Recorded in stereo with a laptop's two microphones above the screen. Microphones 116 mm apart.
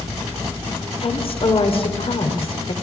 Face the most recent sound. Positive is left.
turn(degrees=55)  # may be behind; listen again after turning